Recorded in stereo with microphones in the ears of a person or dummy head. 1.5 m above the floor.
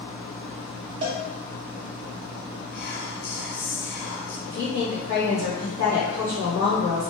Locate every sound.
1.0 s a cowbell: 30° right (ahead or behind), 0.6 m
2.7 s whispering: 65° left (ahead or behind), 0.9 m
4.5 s a woman speaking: 40° left (ahead or behind), 1.4 m